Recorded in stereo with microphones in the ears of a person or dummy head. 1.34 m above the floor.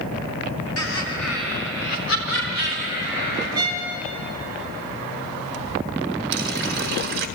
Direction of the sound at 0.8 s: 90° left.